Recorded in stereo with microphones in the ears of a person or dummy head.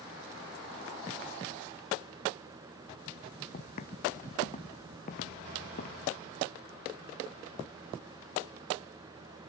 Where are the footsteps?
45° left (ahead or behind).